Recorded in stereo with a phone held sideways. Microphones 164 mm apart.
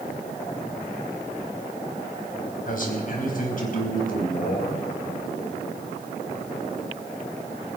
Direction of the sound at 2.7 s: 55° left (ahead or behind).